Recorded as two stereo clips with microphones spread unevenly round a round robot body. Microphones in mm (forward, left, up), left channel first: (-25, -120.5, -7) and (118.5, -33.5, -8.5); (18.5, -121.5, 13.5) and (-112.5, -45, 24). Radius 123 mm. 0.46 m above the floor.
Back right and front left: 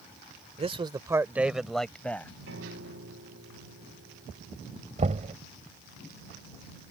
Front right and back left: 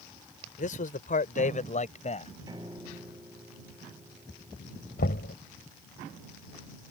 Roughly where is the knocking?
Ahead.